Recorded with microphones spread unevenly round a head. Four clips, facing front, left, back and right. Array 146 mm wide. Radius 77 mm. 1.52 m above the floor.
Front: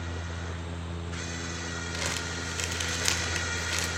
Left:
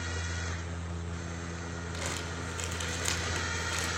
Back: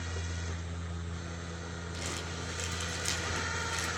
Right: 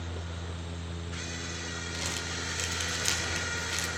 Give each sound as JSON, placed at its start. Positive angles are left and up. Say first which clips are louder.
{"t": 1.9, "sound": "crumpling", "louder": "left 1 dB, front 4 dB", "azimuth_deg": 20, "distance_m": 3.0}